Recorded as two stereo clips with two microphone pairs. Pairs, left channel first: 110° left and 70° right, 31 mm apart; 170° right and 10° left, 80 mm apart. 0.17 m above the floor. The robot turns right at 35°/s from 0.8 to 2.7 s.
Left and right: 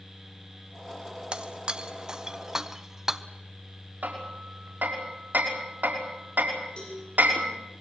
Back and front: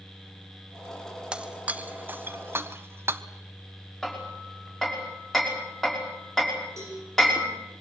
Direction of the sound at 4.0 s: 80° right.